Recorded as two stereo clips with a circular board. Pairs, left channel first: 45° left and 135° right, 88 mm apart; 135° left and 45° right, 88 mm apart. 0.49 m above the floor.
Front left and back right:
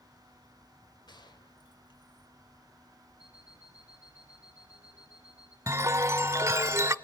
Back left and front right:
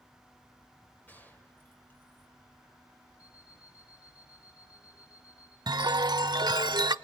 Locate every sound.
1.1 s a gunshot: 70° left, 2.5 m
3.2 s an alarm clock: 85° left, 10 m
5.7 s a chime: 75° right, 0.8 m